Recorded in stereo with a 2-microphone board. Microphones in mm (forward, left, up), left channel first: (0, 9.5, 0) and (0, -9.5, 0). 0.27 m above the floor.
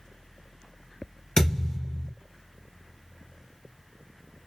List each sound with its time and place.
1.4 s a thud: 55° left (ahead or behind), 1.5 m